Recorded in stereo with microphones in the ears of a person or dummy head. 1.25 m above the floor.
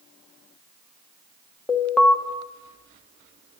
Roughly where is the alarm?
Centre.